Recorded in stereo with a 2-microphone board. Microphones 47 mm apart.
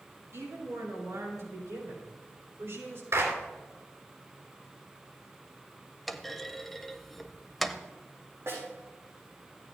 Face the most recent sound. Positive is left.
turn(degrees=-65)  # may be behind; listen again after turning